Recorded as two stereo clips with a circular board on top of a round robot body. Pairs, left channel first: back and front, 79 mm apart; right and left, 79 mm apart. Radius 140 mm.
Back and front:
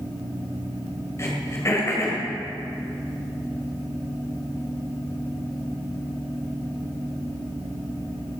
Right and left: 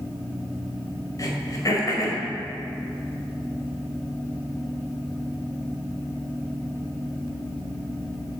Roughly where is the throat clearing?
Behind right.